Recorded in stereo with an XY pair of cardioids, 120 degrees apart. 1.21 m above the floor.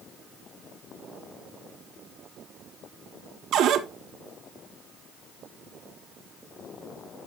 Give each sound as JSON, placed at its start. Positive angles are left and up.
{"t": 3.5, "sound": "a cupboard door", "azimuth_deg": -60, "distance_m": 1.2}